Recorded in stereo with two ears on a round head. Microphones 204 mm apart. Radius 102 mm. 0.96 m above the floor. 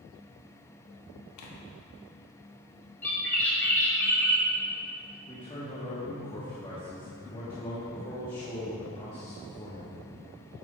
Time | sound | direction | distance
1.4 | tearing paper | 85° left | 1.1 m
3.0 | a bird | 10° left (ahead or behind) | 1.9 m
5.3 | a man speaking | 20° left (ahead or behind) | 1.6 m